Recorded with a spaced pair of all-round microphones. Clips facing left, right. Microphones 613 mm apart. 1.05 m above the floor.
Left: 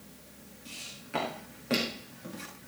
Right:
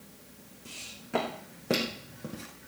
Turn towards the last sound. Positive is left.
turn(degrees=-65)  # may be behind; listen again after turning